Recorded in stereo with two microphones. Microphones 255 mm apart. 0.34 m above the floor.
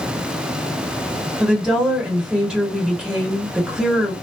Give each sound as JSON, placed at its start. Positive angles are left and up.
{"t": 1.4, "sound": "a woman speaking", "side_deg": -5, "distance_m": 1.5}